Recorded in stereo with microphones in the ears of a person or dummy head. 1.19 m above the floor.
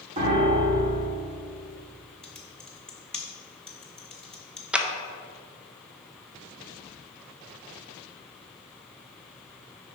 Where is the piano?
35° right (ahead or behind), 1.4 m.